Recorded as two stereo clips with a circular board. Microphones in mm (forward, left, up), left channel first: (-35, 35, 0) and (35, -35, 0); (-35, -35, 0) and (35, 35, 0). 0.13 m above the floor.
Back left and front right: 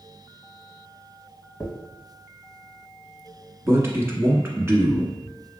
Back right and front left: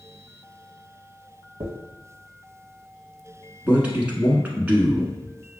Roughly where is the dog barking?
No dog barking in this recording.